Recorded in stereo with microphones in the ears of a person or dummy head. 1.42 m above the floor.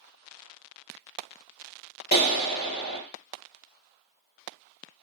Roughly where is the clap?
Left.